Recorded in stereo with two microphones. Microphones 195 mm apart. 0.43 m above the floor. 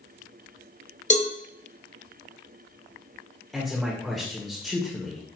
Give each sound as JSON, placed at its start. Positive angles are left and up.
{"t": 1.1, "sound": "a cowbell", "side_deg": 35, "distance_m": 0.8}
{"t": 3.5, "sound": "a man speaking", "side_deg": 0, "distance_m": 1.6}